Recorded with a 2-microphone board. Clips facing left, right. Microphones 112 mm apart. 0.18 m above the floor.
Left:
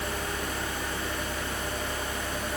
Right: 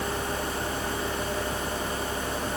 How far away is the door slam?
I don't hear a door slam.